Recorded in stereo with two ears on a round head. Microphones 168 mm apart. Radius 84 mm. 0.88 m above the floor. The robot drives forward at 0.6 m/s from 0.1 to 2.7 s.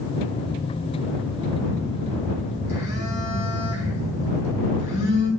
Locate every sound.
1.5 s a phone buzzing: 75° left (ahead or behind), 4.5 m; by 5.3 s 70° left (ahead or behind), 4.5 m